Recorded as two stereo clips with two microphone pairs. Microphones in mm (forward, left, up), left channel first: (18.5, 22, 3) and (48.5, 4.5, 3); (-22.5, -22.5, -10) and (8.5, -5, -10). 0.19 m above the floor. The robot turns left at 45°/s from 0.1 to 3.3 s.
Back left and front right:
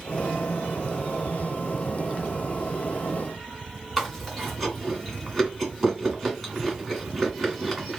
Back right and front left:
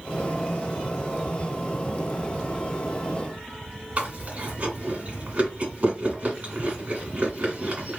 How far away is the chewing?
About 2 m.